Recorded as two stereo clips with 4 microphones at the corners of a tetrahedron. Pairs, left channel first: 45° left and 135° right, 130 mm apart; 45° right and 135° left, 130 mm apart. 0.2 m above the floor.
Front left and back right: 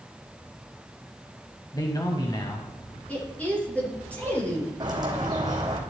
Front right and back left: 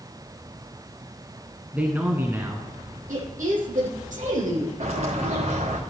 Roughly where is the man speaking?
Ahead left.